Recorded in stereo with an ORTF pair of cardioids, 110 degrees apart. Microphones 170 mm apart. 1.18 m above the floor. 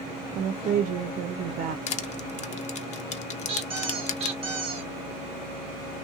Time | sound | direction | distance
0.3 | a woman speaking | 45° right | 0.5 m
1.9 | crushing | 40° left | 0.5 m
3.5 | a squeak | 35° right | 0.8 m